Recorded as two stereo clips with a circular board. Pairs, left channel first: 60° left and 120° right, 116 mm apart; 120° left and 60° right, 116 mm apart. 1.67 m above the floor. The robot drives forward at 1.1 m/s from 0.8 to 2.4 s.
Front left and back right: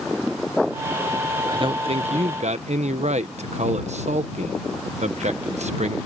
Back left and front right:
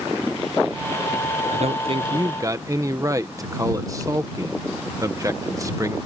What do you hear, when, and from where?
1.5 s a man speaking: 70° right; by 6.0 s 120° right